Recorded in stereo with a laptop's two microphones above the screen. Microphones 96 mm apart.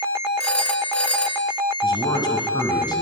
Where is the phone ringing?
10° left (ahead or behind), 3 m.